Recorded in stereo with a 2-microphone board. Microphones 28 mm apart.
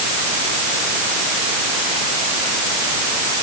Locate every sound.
Only background noise.